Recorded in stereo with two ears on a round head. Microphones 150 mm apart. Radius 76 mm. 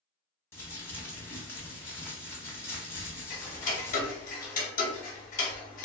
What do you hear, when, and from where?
0.5 s crumpling: 15° left (ahead or behind), 0.9 m
3.3 s ticking: 50° left (ahead or behind), 0.6 m